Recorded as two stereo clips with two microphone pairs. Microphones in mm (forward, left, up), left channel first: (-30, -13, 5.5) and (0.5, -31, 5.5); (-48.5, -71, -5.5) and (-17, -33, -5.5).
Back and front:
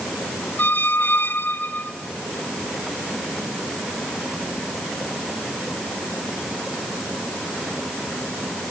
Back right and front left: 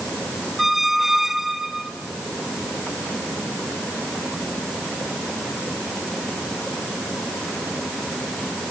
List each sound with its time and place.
0.6 s a squeak: 140° left, 0.7 m